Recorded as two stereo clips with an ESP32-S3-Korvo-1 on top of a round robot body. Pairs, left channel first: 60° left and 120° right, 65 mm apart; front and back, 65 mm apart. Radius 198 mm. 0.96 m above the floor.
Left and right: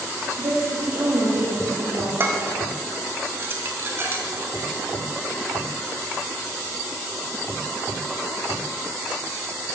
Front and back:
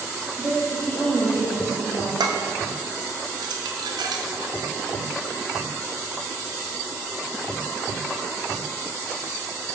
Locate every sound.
0.4 s a woman speaking: 70° right, 1.7 m
2.2 s dishes clattering: 175° right, 0.7 m